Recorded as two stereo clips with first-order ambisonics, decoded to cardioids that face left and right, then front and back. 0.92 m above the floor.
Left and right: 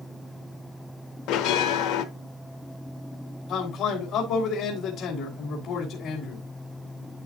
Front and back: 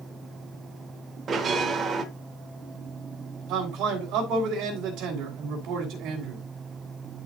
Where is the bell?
115° left, 0.9 m.